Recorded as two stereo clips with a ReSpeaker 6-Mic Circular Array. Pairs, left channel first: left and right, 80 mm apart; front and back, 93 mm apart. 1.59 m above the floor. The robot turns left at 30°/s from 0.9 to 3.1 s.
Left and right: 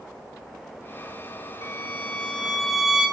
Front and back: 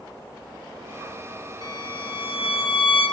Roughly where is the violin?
Ahead left.